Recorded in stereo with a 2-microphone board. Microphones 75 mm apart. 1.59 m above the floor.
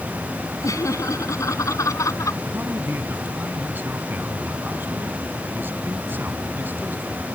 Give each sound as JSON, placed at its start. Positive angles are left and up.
{"t": 0.6, "sound": "laughter", "side_deg": 50}
{"t": 2.5, "sound": "a man speaking", "side_deg": -30}